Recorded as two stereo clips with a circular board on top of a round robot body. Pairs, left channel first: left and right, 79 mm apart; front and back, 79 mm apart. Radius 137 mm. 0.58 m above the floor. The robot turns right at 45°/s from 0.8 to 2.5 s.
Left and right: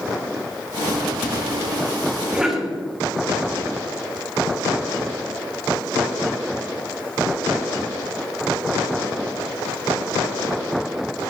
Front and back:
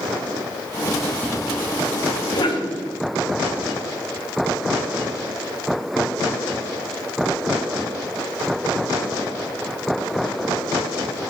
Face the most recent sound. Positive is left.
turn(degrees=-5)